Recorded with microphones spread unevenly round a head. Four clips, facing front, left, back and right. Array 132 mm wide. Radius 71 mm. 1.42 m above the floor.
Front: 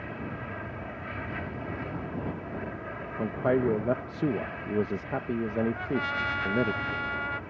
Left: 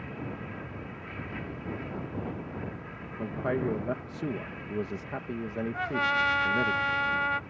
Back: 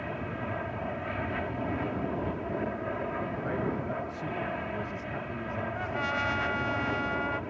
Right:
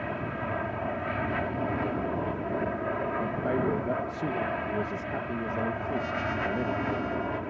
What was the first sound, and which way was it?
An aircraft, 110° right.